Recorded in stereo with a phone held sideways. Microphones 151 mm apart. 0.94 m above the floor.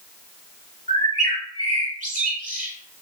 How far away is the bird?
About 1.3 m.